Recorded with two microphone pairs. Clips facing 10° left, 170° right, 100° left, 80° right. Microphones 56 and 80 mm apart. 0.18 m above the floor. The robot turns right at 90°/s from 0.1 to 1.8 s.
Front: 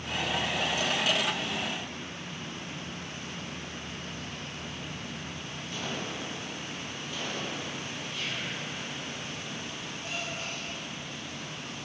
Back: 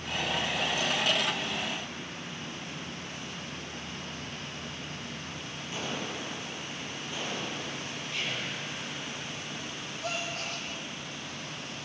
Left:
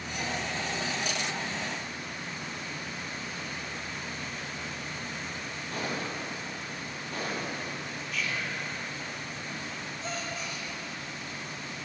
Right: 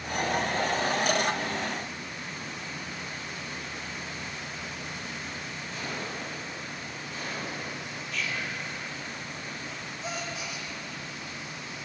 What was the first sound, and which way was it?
A gunshot, 125° left.